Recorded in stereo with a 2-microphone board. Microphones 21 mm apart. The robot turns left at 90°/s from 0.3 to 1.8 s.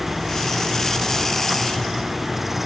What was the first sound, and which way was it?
Only background noise.